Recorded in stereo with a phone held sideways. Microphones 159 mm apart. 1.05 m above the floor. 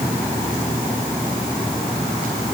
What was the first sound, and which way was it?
Only background noise.